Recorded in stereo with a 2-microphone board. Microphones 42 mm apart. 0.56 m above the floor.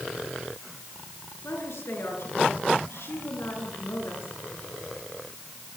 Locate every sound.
1.4 s a woman speaking: 85° left, 8 m